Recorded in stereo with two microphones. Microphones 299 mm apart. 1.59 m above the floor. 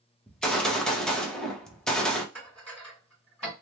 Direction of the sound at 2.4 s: 5° left (ahead or behind).